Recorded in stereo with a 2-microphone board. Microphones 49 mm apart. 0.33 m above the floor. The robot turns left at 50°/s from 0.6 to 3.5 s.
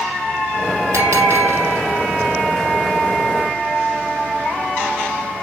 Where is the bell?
100° right, 5 m; by 2.1 s 155° right, 5 m.